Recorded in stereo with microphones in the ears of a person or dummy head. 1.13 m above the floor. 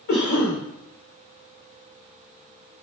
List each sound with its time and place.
0.1 s a cough: 45° left (ahead or behind), 0.9 m